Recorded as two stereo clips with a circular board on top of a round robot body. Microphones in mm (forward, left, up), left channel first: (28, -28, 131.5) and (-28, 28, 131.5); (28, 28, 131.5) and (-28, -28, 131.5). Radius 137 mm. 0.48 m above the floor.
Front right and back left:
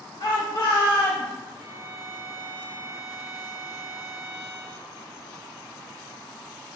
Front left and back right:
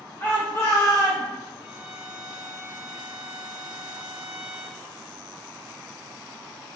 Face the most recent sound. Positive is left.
turn(degrees=-65)